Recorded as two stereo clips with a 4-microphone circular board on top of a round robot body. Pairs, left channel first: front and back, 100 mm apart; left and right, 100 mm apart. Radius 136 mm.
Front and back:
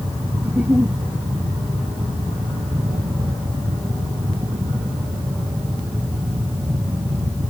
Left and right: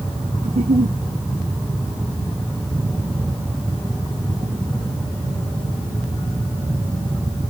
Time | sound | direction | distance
0.4 | a giggle | 105° right | ?